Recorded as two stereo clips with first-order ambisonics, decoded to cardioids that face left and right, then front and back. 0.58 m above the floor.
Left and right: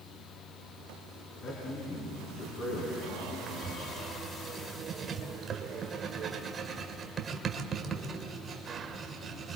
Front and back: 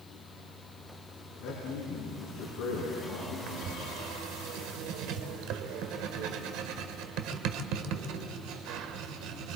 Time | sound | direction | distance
1.4 | a man speaking | 45° left | 7.5 m
3.5 | writing | 155° right | 1.4 m